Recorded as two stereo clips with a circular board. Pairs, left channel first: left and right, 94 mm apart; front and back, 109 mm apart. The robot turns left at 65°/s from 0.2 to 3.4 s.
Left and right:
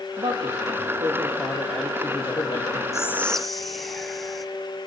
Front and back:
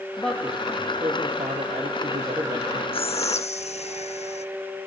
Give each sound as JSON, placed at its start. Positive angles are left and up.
{"t": 0.2, "sound": "a man speaking", "azimuth_deg": -75, "distance_m": 3.0}
{"t": 2.9, "sound": "whispering", "azimuth_deg": 30, "distance_m": 1.0}